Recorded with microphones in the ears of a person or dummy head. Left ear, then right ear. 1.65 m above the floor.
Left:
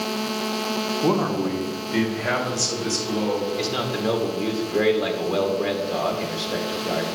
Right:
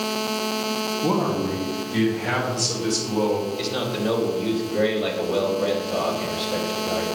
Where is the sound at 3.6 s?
65° left (ahead or behind), 2.0 m.